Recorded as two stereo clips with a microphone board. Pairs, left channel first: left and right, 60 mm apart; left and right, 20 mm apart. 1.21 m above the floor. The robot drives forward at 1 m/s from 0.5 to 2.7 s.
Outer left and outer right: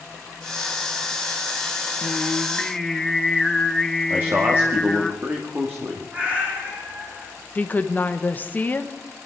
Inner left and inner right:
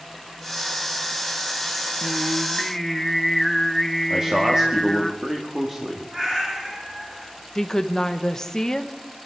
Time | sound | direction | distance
2.0 | singing | 10° left (ahead or behind) | 0.6 m
4.1 | a man speaking | 30° right (ahead or behind) | 2 m
6.1 | a cat meowing | 25° right (ahead or behind) | 6.5 m
7.5 | a woman speaking | 30° left (ahead or behind) | 1.3 m